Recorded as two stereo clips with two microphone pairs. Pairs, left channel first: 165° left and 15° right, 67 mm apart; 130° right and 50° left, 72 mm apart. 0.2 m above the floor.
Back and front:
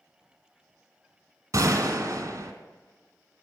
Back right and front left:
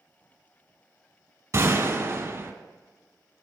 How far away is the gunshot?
About 1.0 m.